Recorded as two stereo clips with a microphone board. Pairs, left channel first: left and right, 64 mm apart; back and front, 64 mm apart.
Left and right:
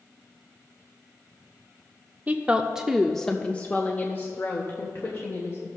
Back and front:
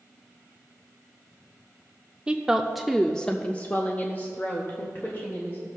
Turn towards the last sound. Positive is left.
turn(degrees=135)